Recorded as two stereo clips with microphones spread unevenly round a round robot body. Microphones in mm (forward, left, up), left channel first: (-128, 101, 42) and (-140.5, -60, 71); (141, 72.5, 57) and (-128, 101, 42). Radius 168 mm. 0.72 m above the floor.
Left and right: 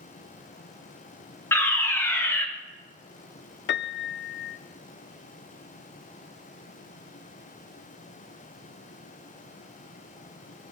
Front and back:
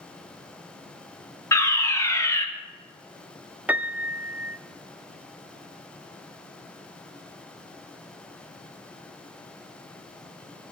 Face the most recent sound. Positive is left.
turn(degrees=90)